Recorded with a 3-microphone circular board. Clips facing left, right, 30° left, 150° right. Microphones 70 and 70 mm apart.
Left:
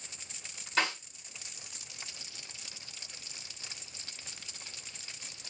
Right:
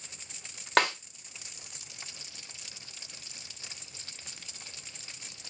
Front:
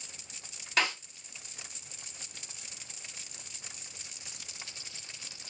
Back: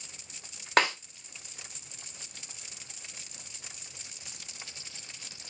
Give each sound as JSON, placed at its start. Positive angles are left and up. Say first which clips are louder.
{"t": 0.8, "sound": "a snare drum", "louder": "right 6 dB, back 5 dB", "azimuth_deg": -115, "distance_m": 0.9}